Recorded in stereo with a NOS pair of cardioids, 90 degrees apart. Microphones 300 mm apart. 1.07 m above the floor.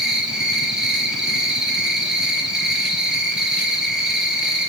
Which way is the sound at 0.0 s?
Straight ahead.